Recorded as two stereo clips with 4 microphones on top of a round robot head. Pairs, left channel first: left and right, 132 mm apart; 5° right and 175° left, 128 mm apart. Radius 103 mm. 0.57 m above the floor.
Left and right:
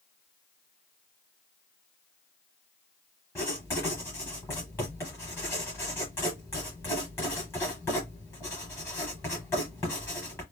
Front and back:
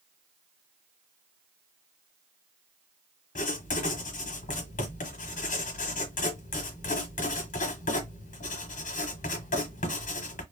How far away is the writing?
About 1.1 m.